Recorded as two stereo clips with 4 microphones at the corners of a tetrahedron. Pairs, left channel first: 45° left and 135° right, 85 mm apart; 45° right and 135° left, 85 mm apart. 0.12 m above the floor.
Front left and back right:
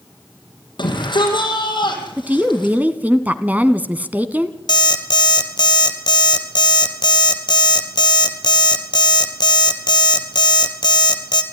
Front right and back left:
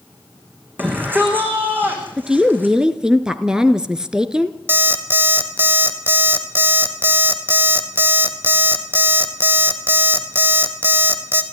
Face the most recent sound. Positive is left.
turn(degrees=70)